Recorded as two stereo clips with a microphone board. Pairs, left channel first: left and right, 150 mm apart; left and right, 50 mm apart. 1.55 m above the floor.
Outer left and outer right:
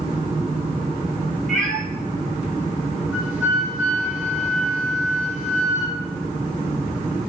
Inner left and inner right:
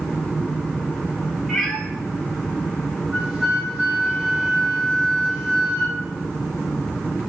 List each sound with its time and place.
1.5 s a cat meowing: 5° left (ahead or behind), 1.2 m
3.1 s a flute: 15° right (ahead or behind), 1.7 m